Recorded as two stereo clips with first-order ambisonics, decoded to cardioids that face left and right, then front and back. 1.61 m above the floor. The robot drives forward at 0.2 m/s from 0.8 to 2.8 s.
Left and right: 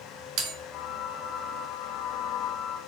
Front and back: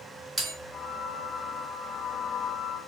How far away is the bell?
About 1.1 m.